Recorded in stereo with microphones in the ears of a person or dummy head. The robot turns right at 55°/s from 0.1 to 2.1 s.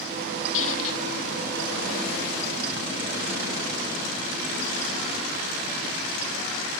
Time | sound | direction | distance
0.5 | a squeak | 80° left | ?